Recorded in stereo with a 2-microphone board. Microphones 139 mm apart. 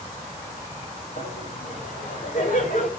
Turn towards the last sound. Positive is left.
turn(degrees=65)  # may be behind; listen again after turning